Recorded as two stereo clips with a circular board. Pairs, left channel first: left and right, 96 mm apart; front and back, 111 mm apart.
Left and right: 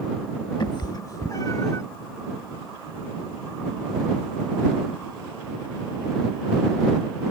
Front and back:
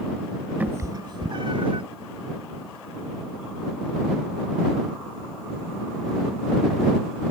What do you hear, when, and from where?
0.6 s a cat meowing: 110° left; by 1.8 s 145° left